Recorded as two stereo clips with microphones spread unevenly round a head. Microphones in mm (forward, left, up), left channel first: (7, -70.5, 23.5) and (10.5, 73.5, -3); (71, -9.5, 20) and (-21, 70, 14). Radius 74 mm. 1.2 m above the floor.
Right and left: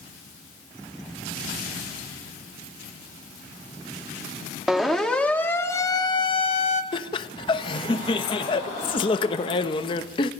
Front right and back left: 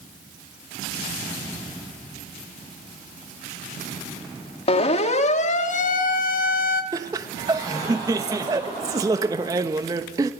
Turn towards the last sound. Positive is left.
turn(degrees=-150)